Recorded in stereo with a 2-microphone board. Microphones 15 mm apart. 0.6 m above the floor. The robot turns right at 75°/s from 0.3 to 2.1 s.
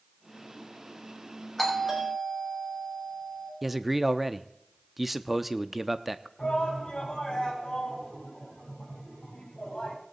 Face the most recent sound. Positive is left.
turn(degrees=75)  # may be behind; listen again after turning